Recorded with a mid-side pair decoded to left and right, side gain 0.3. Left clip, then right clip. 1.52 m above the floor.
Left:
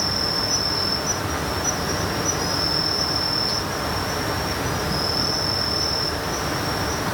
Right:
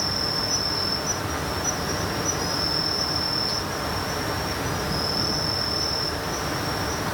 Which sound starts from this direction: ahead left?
An insect, at 0.0 s.